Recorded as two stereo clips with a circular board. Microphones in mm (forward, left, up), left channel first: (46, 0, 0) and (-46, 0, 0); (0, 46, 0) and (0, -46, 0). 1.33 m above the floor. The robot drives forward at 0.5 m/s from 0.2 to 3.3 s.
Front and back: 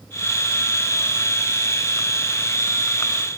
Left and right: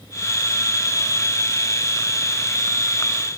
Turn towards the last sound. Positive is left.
No sound to turn to.